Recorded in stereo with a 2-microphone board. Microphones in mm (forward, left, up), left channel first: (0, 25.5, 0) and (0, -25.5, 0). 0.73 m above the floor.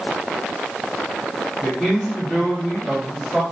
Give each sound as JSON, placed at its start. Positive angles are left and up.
{"t": 1.6, "sound": "a man speaking", "side_deg": 20, "distance_m": 1.7}